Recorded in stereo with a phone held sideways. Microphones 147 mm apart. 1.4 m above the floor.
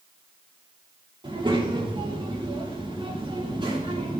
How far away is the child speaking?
About 3.5 m.